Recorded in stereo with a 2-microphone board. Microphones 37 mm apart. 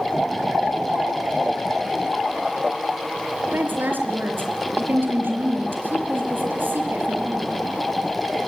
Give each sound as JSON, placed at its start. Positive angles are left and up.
{"t": 3.5, "sound": "a woman speaking", "side_deg": -60, "distance_m": 4.5}